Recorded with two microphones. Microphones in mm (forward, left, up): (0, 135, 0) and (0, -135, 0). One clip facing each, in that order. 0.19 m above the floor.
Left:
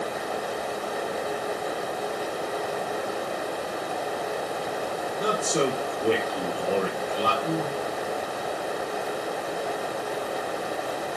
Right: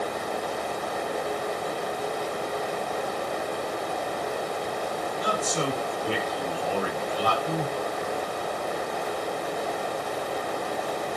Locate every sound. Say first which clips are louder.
5.2 s a man speaking: left 5 dB; 60° left (ahead or behind), 4.5 m; by 7.7 s 70° left (ahead or behind), 6 m